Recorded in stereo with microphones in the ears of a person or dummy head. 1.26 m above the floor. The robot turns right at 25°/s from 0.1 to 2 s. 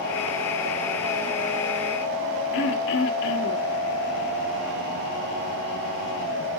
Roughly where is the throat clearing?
Left.